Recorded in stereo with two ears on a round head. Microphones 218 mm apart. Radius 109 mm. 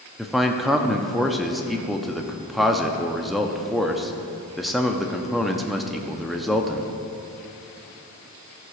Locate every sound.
0.2 s a man speaking: centre (ahead or behind), 0.5 m